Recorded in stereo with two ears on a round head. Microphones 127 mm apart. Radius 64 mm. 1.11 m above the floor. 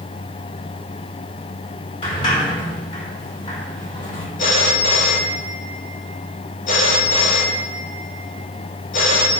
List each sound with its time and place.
2.0 s a sliding door: 35° left (ahead or behind), 4.5 m
4.4 s a phone ringing: 60° left (ahead or behind), 2.5 m